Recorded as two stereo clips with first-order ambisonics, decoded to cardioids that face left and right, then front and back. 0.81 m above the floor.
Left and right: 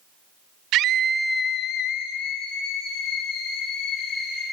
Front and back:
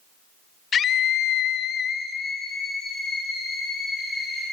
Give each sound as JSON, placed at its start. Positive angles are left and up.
{"t": 0.7, "sound": "a scream", "azimuth_deg": -60, "distance_m": 0.7}